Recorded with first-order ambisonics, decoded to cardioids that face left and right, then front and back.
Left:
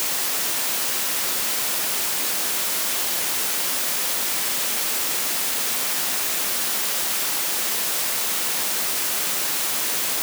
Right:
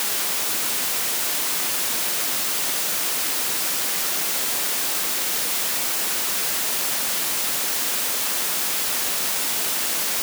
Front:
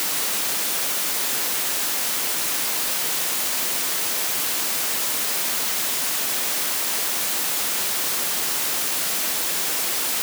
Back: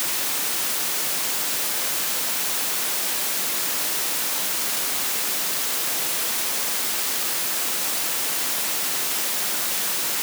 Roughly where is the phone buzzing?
I don't hear a phone buzzing.